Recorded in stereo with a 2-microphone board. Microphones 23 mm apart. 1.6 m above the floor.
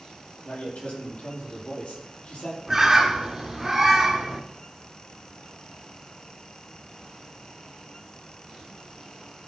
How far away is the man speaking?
About 6.5 m.